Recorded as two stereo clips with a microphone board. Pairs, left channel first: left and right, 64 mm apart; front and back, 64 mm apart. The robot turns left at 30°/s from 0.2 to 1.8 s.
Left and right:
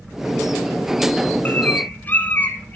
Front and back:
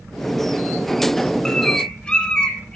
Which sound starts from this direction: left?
A bird, at 1.4 s.